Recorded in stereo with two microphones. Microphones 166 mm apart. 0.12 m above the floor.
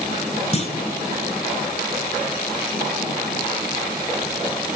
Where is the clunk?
40° left (ahead or behind), 1.1 m.